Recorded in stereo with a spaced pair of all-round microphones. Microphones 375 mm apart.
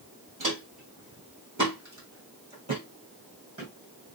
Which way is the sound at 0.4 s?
55° right (ahead or behind).